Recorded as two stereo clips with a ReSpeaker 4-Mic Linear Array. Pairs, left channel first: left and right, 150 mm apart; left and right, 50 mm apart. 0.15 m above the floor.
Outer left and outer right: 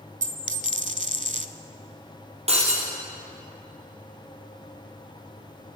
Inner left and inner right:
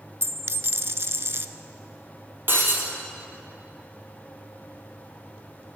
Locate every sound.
0.2 s a dropped coin: 60° right (ahead or behind), 0.5 m
2.5 s breaking glass: 45° right (ahead or behind), 3 m